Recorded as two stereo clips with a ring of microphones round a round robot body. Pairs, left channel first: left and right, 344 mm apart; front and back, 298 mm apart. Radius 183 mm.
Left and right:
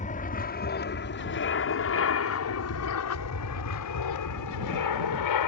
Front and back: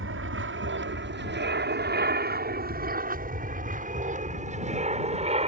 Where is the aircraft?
150° left; by 5.5 s 115° left.